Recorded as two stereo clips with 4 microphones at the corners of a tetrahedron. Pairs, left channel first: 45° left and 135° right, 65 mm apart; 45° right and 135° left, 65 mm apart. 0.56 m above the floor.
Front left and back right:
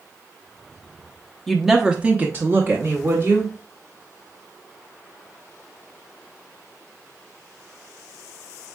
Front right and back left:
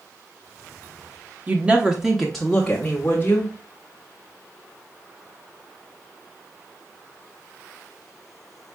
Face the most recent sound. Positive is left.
turn(degrees=-105)